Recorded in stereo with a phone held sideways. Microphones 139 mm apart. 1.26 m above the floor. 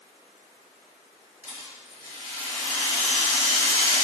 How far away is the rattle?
About 4.5 m.